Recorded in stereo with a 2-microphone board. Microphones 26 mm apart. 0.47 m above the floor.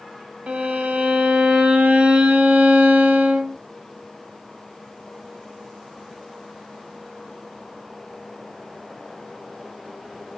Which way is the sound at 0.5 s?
75° right (ahead or behind).